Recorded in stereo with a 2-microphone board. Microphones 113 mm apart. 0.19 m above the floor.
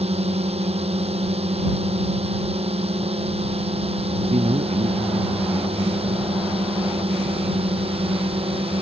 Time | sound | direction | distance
0.0 | a drone | 65° right (ahead or behind) | ?
4.2 | a man speaking | 75° right (ahead or behind) | ?